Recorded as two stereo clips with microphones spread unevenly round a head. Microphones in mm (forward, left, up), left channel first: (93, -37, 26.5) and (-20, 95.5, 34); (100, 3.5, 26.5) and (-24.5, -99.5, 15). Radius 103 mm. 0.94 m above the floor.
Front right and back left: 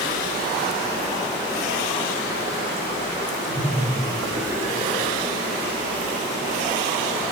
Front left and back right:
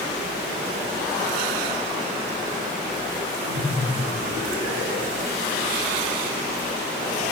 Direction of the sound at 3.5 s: Straight behind.